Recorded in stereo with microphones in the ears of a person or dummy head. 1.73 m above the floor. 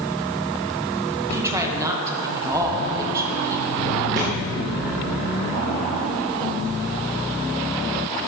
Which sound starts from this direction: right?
A thud, at 4.2 s.